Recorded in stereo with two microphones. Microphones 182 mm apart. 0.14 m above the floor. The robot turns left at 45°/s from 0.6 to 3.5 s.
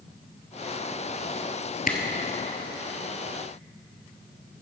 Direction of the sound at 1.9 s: 50° left (ahead or behind).